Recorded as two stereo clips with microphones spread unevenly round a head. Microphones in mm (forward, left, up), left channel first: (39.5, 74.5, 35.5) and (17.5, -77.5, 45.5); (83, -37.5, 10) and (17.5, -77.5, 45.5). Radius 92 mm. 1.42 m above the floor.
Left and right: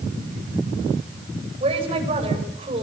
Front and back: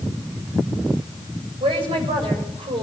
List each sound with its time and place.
1.6 s a woman speaking: 155° right, 7.5 m